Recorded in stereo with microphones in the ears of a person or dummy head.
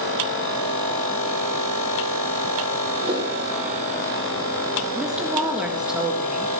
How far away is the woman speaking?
About 1.8 m.